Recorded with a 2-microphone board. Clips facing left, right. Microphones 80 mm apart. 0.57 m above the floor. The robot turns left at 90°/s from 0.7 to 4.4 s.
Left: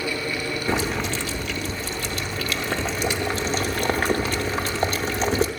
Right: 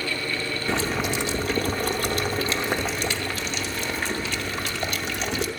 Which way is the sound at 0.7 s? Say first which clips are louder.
Even; 20° left.